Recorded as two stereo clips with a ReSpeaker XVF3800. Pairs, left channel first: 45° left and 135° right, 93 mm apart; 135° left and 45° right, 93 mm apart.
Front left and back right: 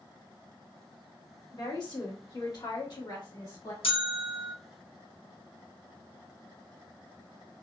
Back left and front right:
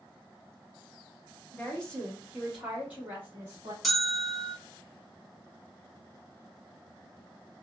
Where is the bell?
45° left, 0.8 m.